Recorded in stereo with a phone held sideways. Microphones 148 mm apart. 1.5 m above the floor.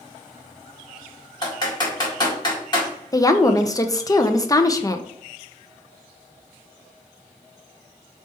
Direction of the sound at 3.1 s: 25° left (ahead or behind).